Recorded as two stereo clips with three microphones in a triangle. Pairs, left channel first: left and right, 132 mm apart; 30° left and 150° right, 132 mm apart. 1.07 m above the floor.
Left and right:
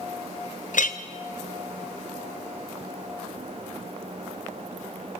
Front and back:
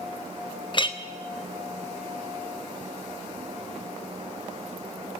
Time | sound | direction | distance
0.7 | a clink | 80° left | 0.7 m